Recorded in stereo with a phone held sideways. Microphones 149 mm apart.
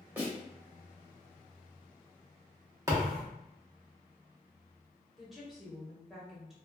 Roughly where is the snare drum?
Centre.